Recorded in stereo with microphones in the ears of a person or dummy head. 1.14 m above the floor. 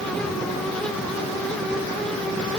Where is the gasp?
No gasp in this recording.